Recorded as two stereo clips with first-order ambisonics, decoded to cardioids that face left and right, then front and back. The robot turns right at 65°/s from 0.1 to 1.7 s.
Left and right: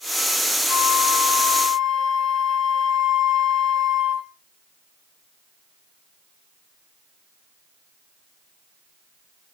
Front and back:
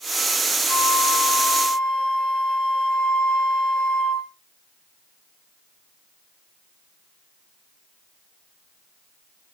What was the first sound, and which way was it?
A flute, 15° right.